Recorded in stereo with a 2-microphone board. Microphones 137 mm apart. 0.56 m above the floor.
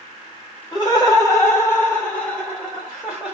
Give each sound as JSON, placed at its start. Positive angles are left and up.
{"t": 0.7, "sound": "laughter", "side_deg": 35, "distance_m": 1.9}